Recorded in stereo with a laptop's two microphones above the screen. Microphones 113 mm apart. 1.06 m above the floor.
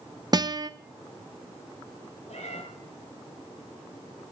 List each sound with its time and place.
0.3 s a guitar: 35° right (ahead or behind), 0.6 m
2.3 s a cat meowing: 75° left (ahead or behind), 3 m